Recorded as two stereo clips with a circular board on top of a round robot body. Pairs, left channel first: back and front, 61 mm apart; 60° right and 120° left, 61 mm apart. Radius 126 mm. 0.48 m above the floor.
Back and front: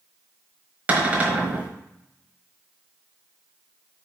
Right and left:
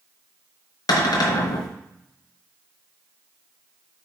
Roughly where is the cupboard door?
Ahead right.